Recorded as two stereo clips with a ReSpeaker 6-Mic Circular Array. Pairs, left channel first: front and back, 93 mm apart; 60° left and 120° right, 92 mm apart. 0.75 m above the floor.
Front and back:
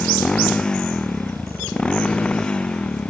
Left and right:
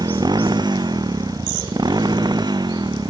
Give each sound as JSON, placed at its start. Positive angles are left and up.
{"t": 0.0, "sound": "a motorcycle", "azimuth_deg": -80}